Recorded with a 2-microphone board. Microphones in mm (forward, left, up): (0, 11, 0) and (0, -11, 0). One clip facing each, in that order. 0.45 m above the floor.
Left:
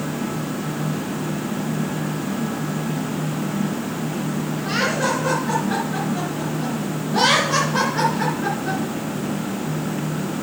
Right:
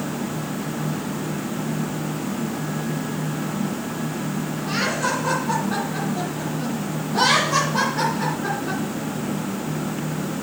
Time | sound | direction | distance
4.6 | laughter | 55° left (ahead or behind) | 5.5 m